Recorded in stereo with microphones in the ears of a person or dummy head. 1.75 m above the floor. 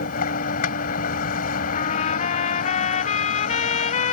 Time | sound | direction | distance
0.0 | a vehicle | 55° left (ahead or behind) | ?
1.7 | a trumpet | 45° left (ahead or behind) | ?